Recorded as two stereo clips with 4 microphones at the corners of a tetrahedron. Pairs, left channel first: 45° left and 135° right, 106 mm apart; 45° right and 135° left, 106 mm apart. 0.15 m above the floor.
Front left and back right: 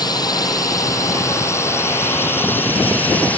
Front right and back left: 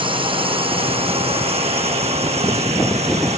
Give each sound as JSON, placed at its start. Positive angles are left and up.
{"t": 0.0, "sound": "a drone", "azimuth_deg": 95}